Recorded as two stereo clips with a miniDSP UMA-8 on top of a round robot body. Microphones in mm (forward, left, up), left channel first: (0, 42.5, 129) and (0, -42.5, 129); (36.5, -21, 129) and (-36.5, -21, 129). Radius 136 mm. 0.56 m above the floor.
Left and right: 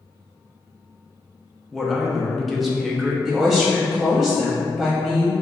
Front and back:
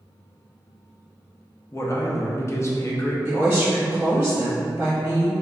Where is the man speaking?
Straight ahead, 0.9 m.